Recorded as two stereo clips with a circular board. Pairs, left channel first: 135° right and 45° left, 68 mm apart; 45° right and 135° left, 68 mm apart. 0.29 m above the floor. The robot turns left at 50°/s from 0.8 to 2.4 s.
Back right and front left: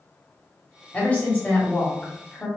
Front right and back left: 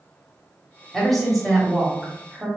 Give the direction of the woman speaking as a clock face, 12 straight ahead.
4 o'clock.